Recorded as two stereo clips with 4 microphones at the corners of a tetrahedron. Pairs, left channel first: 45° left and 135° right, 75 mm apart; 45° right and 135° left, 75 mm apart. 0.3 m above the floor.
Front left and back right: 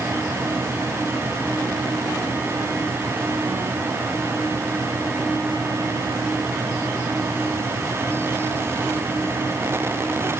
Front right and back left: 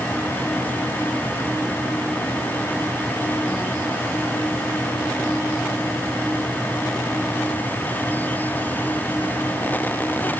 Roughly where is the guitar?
No guitar in this recording.